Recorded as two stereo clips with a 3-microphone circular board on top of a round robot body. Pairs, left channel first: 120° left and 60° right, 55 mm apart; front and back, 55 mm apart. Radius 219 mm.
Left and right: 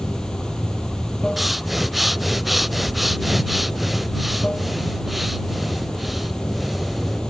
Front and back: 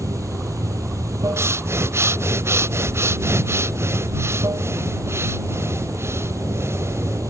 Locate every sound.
0.0 s running water: 160° right
1.4 s breathing: 150° right